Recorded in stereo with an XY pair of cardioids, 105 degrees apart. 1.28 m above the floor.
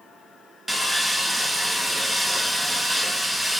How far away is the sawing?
About 0.8 m.